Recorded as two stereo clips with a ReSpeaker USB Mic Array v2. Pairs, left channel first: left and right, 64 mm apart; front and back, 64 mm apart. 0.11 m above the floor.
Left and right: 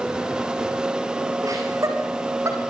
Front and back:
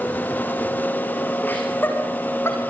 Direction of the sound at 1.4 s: 65° right.